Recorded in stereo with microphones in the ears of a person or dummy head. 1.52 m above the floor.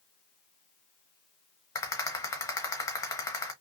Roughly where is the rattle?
Centre.